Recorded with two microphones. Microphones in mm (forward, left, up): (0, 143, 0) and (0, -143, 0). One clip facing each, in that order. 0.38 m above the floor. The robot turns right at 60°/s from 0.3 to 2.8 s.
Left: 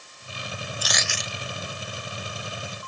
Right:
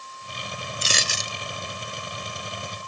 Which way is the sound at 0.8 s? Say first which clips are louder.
Right 1 dB; 155° right.